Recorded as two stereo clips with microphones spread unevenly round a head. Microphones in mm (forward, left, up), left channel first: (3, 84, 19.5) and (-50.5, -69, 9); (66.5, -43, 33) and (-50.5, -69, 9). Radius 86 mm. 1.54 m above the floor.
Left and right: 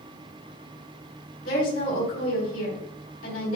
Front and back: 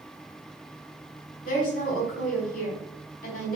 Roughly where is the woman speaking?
Ahead left.